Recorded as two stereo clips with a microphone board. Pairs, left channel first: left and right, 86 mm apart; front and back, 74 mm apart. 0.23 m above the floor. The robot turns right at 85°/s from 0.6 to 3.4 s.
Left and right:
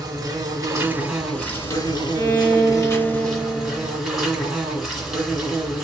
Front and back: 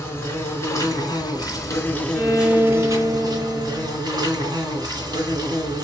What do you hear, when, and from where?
0.0 s an insect: 55° right, 2.5 m; by 5.8 s 175° right, 2.5 m
2.1 s a violin: 115° left, 1.8 m; by 4.0 s 140° right, 1.8 m